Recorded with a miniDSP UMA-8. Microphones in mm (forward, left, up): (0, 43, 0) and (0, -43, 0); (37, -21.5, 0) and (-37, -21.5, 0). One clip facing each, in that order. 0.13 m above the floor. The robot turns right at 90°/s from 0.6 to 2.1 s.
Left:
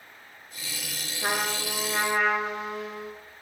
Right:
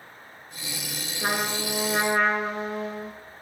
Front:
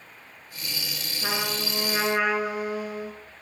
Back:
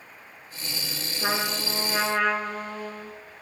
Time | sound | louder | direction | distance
1.2 | a trumpet | right 1 dB, back 2 dB | 155° right | 1.8 m